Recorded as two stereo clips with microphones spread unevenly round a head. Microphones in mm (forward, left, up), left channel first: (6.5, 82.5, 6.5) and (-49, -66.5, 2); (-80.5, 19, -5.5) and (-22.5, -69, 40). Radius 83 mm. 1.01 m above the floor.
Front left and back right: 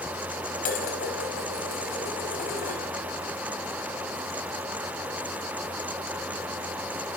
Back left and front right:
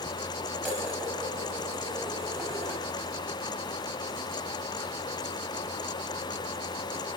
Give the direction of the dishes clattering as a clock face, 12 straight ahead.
11 o'clock.